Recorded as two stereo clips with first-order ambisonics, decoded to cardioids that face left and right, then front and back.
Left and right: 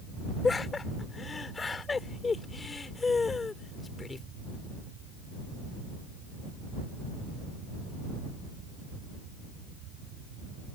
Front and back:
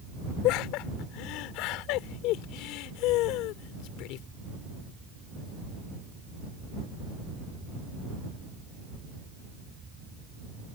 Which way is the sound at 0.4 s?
15° left.